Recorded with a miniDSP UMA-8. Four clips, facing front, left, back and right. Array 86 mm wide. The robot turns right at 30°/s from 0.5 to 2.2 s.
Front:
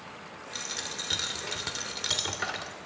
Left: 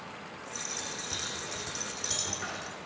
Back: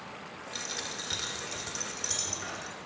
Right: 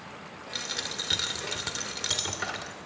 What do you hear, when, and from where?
0.5 s a dropped coin: 85° right, 1.7 m; by 2.8 s 35° right, 1.7 m